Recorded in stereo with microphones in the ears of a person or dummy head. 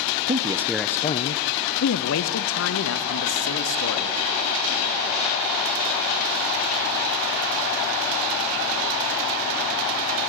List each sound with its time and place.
0.3 s a man speaking: 35° right (ahead or behind), 0.8 m; by 4.2 s 80° left, 3 m